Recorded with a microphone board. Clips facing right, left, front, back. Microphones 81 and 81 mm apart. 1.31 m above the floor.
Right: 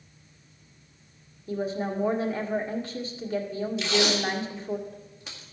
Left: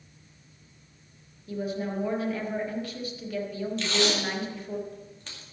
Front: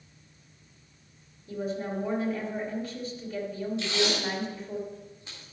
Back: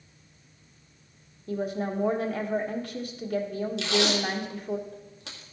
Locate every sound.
1.5 s a woman speaking: 150° right, 1.5 m
3.8 s tape being pulled: 170° right, 2.0 m